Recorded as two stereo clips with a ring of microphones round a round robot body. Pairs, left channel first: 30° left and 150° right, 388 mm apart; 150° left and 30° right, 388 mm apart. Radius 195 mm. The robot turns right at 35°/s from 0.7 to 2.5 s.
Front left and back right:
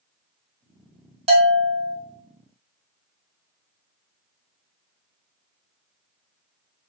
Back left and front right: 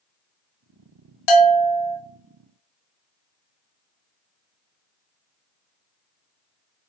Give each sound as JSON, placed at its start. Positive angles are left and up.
{"t": 1.3, "sound": "a bell", "azimuth_deg": 135, "distance_m": 0.8}